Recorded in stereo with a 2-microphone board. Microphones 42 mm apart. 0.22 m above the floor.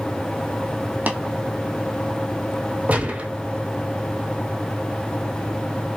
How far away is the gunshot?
About 1.7 m.